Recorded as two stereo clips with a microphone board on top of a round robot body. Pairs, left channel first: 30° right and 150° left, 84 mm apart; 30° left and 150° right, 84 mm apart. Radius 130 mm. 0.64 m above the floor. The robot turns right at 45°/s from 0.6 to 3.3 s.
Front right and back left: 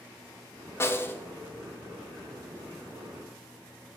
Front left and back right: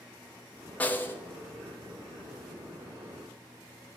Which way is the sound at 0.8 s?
20° right.